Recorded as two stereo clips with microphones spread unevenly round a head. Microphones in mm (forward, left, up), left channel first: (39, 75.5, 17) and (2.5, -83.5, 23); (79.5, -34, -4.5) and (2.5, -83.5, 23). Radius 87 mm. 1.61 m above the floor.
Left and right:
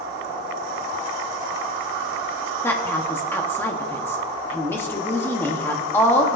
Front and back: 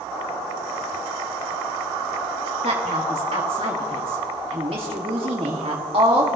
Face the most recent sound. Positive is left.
turn(degrees=155)